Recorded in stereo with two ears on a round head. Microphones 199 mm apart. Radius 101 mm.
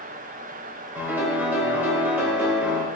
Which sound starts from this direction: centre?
A piano, at 0.9 s.